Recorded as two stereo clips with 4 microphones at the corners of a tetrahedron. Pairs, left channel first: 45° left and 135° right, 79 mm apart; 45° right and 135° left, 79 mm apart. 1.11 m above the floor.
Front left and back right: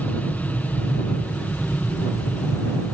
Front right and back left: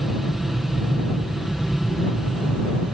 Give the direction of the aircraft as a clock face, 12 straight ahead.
10 o'clock.